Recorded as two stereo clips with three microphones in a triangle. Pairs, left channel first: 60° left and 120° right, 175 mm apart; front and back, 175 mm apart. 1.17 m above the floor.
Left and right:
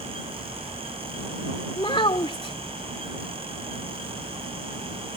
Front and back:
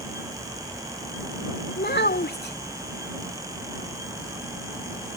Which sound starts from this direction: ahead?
A child speaking, at 1.8 s.